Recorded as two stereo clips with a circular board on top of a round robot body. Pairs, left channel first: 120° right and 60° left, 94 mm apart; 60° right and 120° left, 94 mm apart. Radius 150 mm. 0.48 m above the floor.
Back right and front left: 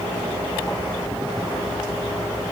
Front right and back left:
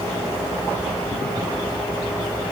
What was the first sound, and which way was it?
Only background noise.